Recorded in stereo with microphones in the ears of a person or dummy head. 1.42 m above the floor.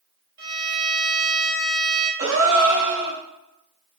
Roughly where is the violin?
Right.